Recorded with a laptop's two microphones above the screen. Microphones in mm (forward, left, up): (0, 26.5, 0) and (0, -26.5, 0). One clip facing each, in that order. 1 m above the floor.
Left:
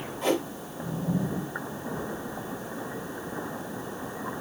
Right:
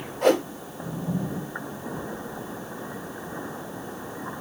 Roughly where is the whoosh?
Right.